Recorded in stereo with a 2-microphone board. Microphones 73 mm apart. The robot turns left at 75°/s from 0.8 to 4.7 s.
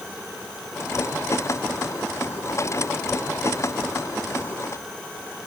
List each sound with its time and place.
Only background noise.